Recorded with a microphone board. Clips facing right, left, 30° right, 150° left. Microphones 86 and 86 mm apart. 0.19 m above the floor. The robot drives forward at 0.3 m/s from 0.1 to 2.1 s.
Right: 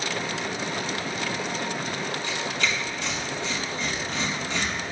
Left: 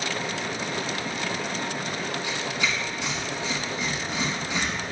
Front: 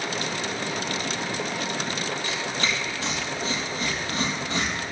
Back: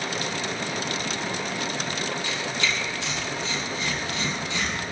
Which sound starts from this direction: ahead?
Tearing paper, at 2.2 s.